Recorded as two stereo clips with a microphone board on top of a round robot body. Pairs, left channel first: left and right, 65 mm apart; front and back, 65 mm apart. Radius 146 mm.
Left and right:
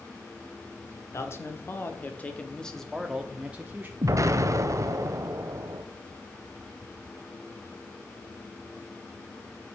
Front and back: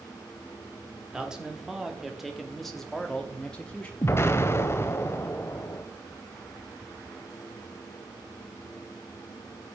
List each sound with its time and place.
1.1 s a man speaking: 105° left, 1.9 m; by 3.9 s 55° right, 1.6 m
4.0 s an explosion: 50° right, 0.8 m